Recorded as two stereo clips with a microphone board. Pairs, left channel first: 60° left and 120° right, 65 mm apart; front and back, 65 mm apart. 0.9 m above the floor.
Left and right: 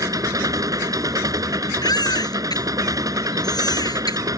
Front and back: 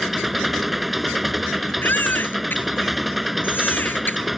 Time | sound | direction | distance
0.0 | an engine running | 95° right | ?
1.8 | a baby crying | 60° left | ?